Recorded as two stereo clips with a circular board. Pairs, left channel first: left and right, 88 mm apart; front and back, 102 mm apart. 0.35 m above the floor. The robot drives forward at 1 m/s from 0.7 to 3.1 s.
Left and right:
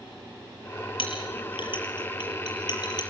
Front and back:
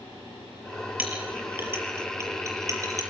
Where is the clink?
105° left, 5.5 m; by 3.0 s 125° left, 6.5 m.